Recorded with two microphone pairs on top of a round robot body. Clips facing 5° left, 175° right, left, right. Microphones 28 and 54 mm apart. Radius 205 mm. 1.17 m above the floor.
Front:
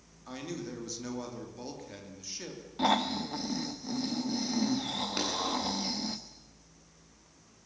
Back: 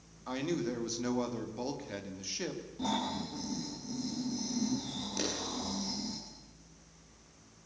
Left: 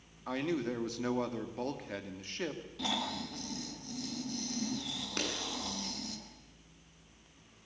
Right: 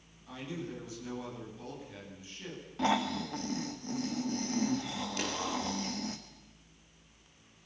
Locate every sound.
0.3 s a man speaking: 110° left, 3 m
2.8 s snoring: 40° right, 1.4 m
5.2 s a clap: 50° left, 10 m